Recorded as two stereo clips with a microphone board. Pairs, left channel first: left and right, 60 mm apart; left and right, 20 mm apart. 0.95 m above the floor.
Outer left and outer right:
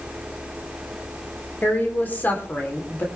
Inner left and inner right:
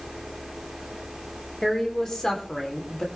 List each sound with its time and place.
1.6 s a woman speaking: 30° left (ahead or behind), 3.5 m